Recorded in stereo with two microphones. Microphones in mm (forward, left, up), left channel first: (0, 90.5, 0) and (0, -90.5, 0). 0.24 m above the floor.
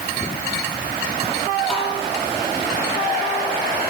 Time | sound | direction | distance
1.7 | tapping | centre (ahead or behind) | 9 m